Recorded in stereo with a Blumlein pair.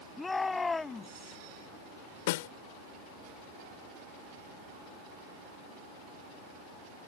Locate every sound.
0.2 s a shout: 10° left; by 1.4 s 15° left
2.3 s a snare drum: 50° left